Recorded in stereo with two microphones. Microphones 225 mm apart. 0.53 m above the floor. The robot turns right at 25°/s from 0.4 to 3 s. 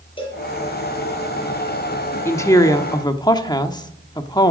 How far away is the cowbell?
About 4 m.